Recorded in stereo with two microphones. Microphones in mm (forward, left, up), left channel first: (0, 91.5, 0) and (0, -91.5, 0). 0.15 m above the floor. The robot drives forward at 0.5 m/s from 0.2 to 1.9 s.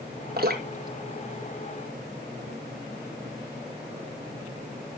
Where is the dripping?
60° right (ahead or behind), 1.7 m; by 2.5 s 50° right (ahead or behind), 1.9 m.